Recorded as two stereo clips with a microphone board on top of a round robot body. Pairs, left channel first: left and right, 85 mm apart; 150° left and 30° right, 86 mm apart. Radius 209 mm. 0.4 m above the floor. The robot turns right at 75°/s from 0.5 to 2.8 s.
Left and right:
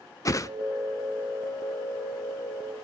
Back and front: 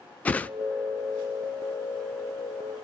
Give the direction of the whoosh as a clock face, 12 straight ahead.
9 o'clock.